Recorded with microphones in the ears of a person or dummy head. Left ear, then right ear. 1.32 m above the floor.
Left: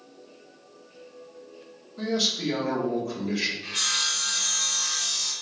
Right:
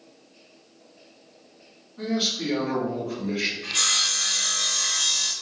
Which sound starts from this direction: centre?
Sawing, at 3.6 s.